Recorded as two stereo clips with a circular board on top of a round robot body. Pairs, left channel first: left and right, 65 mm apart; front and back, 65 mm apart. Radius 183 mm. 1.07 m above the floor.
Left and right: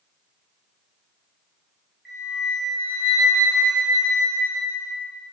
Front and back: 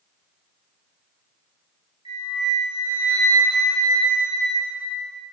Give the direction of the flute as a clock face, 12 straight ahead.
6 o'clock.